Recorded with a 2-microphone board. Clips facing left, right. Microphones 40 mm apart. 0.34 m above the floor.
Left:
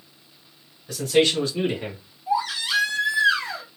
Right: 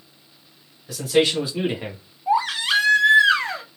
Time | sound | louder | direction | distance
0.9 | a man speaking | even | 5° right (ahead or behind) | 1.4 m
2.3 | a baby crying | right 4 dB | 65° right (ahead or behind) | 0.8 m